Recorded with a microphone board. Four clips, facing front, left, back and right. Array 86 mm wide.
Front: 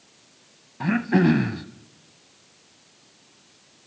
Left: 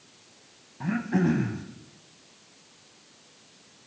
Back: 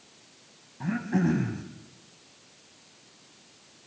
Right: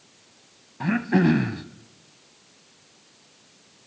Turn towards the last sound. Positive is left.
turn(degrees=-35)